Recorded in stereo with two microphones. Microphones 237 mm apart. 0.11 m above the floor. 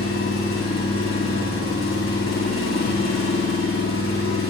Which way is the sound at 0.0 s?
60° left (ahead or behind).